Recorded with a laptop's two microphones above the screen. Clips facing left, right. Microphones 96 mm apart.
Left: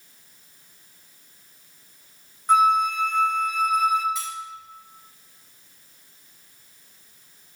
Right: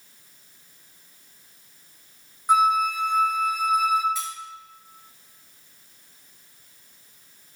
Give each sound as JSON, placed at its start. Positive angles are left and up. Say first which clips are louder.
{"t": 2.5, "sound": "a flute", "louder": "left 1 dB", "side_deg": -10, "distance_m": 0.6}
{"t": 4.2, "sound": "cutlery clinking", "louder": "even", "side_deg": 0, "distance_m": 3.0}